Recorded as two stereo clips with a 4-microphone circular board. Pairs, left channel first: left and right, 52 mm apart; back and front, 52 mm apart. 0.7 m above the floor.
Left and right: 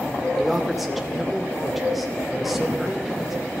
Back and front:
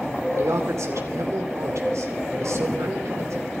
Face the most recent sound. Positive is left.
turn(degrees=-5)